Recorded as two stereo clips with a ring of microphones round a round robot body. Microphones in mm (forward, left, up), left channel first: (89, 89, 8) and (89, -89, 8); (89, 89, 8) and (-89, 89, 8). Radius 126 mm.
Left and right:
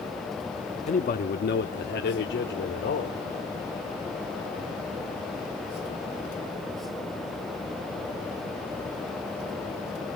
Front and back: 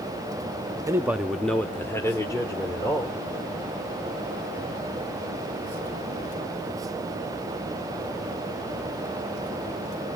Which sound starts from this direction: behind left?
A man speaking, at 0.9 s.